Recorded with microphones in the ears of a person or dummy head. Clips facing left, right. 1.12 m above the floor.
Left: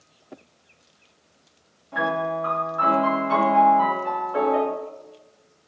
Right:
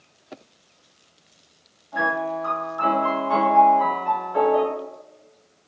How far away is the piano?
About 1.2 m.